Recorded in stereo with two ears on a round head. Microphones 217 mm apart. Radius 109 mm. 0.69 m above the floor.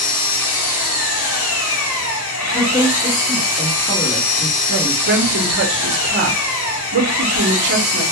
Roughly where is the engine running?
Left.